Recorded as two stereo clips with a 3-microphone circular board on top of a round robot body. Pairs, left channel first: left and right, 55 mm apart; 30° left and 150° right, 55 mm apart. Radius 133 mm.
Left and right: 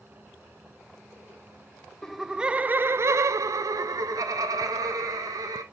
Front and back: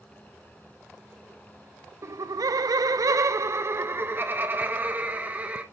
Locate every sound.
2.0 s laughter: 175° left, 0.6 m; by 5.6 s 85° right, 1.9 m